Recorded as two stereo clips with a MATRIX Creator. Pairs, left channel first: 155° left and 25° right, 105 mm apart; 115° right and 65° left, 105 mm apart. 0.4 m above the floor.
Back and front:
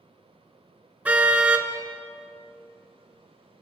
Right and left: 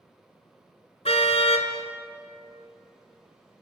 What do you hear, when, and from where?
1.1 s a car horn: 95° right, 2.5 m